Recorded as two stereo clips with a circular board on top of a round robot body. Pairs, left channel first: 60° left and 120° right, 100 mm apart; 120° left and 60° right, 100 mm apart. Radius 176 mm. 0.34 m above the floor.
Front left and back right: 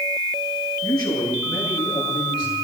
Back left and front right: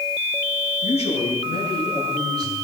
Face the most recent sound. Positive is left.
turn(degrees=105)